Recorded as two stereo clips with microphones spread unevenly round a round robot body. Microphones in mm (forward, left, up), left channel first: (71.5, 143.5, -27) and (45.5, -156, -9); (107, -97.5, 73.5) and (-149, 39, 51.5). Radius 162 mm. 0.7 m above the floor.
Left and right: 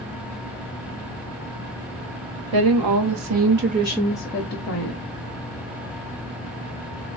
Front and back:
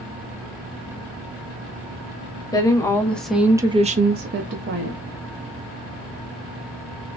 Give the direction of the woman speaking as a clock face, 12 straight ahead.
4 o'clock.